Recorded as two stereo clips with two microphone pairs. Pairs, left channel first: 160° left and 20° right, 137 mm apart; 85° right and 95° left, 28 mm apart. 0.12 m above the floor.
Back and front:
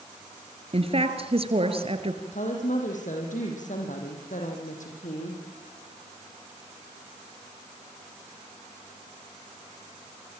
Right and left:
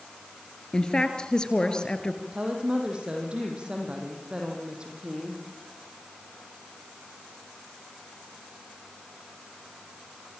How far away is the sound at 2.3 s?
About 5 m.